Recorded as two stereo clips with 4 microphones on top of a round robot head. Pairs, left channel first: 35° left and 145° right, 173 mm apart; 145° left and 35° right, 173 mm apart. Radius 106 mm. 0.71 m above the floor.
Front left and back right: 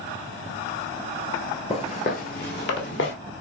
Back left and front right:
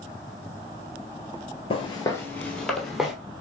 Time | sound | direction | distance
1.7 | footsteps | 90° left | 0.9 m